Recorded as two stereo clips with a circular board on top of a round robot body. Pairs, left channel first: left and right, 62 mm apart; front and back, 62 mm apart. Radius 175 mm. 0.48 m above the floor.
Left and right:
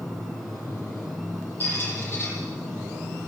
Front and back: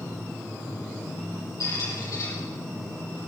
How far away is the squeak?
About 9.5 m.